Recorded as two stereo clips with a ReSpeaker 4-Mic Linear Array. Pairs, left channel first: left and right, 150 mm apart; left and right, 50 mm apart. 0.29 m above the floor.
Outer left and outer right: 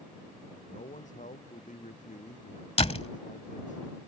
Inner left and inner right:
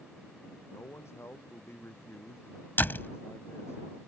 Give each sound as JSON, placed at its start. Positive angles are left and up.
{"t": 0.7, "sound": "a man speaking", "side_deg": 60}
{"t": 2.8, "sound": "a door slam", "side_deg": 45}